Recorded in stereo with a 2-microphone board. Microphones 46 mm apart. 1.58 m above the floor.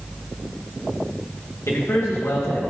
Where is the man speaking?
75° left (ahead or behind), 2.5 m.